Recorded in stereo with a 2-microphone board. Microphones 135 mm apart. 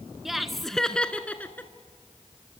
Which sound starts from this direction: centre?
Laughter, at 0.2 s.